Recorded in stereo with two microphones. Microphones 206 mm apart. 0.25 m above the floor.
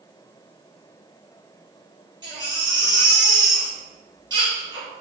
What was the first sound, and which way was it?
A baby crying, 20° right (ahead or behind).